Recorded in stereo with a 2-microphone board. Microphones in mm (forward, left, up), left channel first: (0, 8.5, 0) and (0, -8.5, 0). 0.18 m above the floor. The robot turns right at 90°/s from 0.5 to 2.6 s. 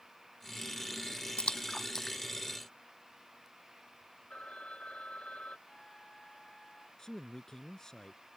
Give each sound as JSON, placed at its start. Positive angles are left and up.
{"t": 1.4, "sound": "a splash", "side_deg": 75}
{"t": 4.3, "sound": "a phone ringing", "side_deg": 85}
{"t": 5.7, "sound": "a flute", "side_deg": 50}
{"t": 7.0, "sound": "a man speaking", "side_deg": 35}